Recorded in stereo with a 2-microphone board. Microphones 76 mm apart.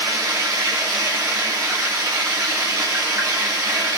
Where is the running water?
40° right (ahead or behind), 3 m.